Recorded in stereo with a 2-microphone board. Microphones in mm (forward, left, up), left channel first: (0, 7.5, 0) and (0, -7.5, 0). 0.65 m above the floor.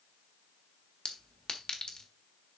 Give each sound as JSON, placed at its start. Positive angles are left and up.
{"t": 1.1, "sound": "a clink", "side_deg": 75, "distance_m": 1.5}